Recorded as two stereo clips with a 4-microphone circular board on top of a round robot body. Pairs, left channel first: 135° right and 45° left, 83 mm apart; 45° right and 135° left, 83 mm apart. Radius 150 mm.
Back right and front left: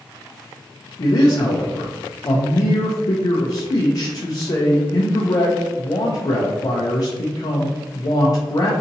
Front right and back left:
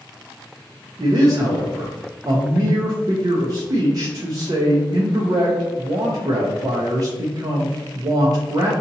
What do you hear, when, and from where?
1.0 s a man speaking: straight behind, 0.6 m